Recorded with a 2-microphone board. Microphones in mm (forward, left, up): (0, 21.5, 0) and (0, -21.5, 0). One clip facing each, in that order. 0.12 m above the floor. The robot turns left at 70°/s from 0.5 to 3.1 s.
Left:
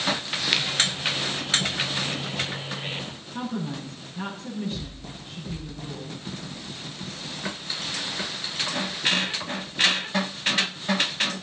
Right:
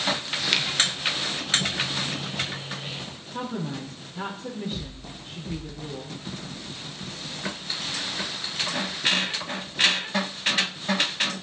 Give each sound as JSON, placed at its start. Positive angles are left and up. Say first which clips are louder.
{"t": 0.5, "sound": "a finger snap", "louder": "even", "side_deg": 5, "distance_m": 1.0}
{"t": 3.3, "sound": "a woman speaking", "louder": "even", "side_deg": -70, "distance_m": 4.5}